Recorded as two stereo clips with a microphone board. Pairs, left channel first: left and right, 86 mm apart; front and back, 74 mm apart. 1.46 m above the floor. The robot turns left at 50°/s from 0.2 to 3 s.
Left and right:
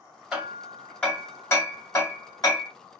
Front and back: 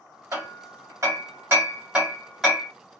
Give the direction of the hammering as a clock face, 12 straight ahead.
6 o'clock.